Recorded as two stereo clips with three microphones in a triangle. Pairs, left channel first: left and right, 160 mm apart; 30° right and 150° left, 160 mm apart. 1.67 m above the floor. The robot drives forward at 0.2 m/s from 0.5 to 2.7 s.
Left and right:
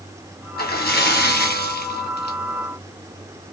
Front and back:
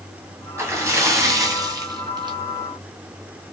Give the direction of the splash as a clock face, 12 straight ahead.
9 o'clock.